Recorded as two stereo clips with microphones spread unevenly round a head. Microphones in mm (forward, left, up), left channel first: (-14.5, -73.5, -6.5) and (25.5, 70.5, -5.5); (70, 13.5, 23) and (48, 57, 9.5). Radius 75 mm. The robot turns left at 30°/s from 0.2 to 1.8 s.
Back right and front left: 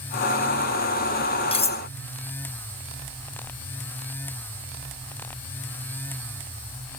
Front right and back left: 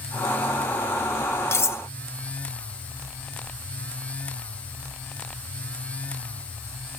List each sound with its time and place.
1.5 s cutlery clinking: 50° right, 0.7 m; by 1.8 s 60° right, 0.7 m